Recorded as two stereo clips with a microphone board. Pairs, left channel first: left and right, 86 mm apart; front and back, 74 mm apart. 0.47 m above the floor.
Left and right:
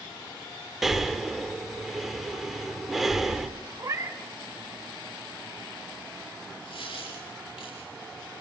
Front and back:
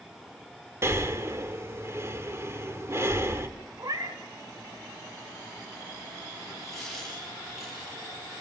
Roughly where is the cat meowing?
Behind right.